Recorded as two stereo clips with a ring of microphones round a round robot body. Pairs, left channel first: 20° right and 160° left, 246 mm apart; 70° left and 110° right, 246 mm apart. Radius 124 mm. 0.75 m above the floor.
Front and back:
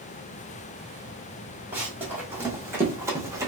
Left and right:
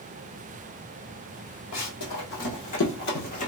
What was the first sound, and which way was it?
Running footsteps, 75° left.